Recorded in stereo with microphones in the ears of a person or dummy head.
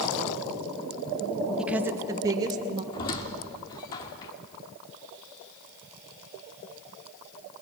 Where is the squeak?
20° left (ahead or behind), 1.0 m.